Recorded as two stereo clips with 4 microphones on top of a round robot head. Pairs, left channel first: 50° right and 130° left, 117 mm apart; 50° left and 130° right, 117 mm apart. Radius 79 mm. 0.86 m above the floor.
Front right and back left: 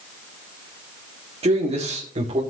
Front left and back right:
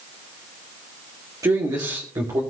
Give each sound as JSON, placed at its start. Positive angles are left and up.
{"t": 1.4, "sound": "a man speaking", "azimuth_deg": 170, "distance_m": 2.5}